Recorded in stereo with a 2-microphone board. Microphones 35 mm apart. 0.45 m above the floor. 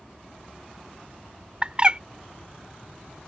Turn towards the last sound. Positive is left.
turn(degrees=-30)  # may be behind; listen again after turning